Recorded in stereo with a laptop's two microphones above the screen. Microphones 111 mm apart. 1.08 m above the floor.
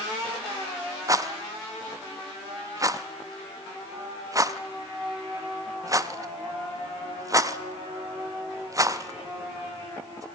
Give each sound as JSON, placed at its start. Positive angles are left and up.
{"t": 1.1, "sound": "a rattle", "side_deg": -30, "distance_m": 0.5}